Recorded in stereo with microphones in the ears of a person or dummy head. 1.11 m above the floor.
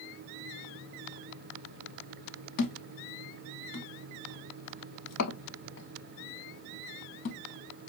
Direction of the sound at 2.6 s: 65° left (ahead or behind).